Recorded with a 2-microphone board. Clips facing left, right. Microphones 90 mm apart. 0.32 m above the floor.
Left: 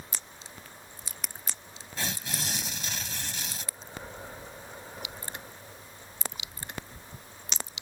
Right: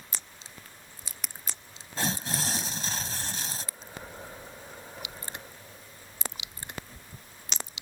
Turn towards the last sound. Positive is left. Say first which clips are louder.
# right 4 dB
turn(degrees=-40)  # may be behind; listen again after turning